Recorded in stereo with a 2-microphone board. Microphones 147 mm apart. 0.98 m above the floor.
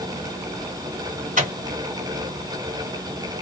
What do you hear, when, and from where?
1.4 s a microwave: 55° right (ahead or behind), 1.6 m